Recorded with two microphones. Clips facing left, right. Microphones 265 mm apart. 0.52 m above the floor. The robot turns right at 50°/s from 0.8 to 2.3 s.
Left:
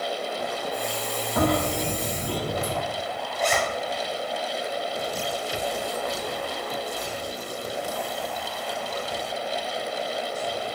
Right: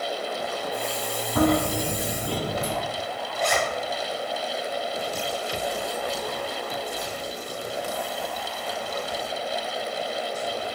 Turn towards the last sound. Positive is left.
turn(degrees=10)  # may be behind; listen again after turning